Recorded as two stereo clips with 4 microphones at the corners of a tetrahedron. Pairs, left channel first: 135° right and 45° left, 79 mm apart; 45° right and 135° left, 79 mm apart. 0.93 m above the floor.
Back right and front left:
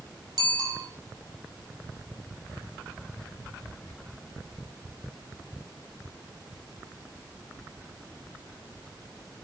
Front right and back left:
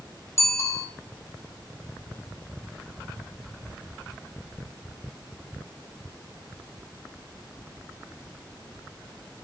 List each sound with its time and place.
0.4 s a bicycle bell: 10° left, 4.5 m